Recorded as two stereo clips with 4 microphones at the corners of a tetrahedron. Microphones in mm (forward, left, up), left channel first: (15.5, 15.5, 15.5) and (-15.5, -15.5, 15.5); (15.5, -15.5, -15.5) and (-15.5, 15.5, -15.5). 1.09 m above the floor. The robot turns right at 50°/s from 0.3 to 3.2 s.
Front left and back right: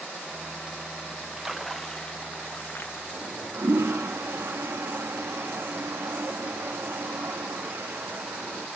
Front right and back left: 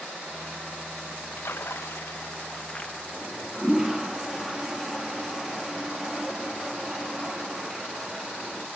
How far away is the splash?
About 0.9 m.